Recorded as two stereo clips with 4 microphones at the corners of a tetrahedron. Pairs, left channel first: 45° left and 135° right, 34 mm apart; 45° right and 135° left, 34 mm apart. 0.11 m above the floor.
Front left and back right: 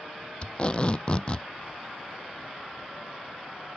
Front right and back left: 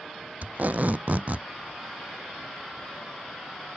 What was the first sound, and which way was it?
Tape being pulled, 100° left.